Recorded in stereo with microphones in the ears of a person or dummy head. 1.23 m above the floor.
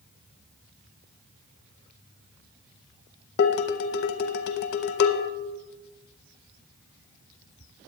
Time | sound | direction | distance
3.4 | dishes clattering | 60° left (ahead or behind) | 0.7 m